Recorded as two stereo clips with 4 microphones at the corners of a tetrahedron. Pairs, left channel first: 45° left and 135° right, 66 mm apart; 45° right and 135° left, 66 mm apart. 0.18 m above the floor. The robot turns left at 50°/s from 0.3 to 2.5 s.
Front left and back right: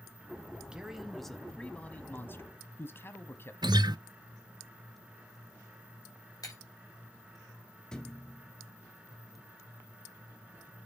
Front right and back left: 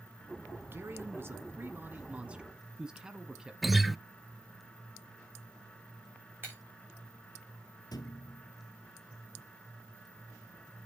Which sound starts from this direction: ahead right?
A thud, at 7.9 s.